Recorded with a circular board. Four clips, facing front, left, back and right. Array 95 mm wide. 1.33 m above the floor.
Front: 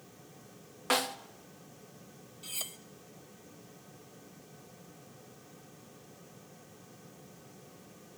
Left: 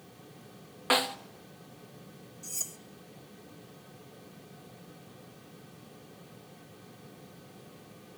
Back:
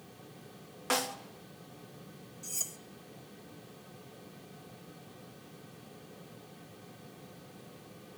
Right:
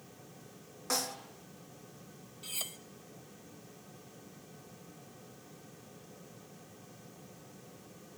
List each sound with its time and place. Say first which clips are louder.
0.9 s a snare drum: left 9 dB, front 2 dB; 75° left, 0.8 m
2.4 s cutlery clinking: right 1 dB, even; 45° right, 0.6 m